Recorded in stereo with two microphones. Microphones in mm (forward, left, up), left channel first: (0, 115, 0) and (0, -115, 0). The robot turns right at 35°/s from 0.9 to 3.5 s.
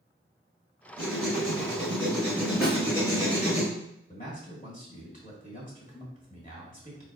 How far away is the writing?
About 2 m.